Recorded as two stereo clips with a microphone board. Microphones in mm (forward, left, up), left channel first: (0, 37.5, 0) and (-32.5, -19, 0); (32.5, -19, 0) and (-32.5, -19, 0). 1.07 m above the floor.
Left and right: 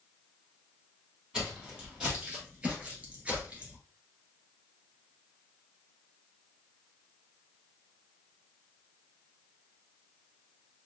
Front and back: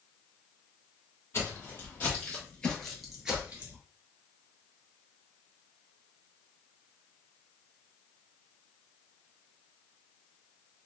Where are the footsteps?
45° right, 2.0 m; by 3.8 s 170° right, 1.1 m.